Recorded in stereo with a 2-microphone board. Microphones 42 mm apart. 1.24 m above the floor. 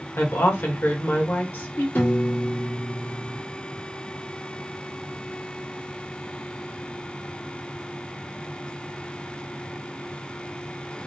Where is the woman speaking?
65° left (ahead or behind), 1.3 m.